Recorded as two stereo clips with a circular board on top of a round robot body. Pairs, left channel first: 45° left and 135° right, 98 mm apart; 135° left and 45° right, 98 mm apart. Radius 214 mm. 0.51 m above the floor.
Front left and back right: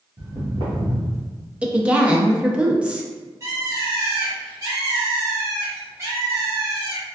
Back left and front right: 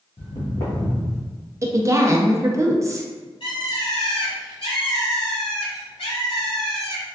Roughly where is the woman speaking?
Ahead right.